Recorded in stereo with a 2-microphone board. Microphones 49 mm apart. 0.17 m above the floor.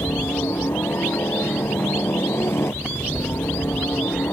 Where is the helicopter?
60° left (ahead or behind).